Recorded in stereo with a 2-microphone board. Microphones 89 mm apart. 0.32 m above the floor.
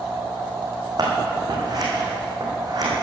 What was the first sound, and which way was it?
Scissors, 45° right (ahead or behind).